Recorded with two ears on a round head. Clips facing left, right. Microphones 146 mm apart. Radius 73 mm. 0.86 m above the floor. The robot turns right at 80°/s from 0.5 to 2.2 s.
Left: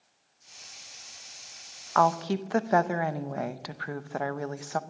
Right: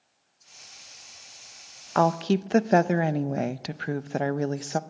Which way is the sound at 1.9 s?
30° right (ahead or behind).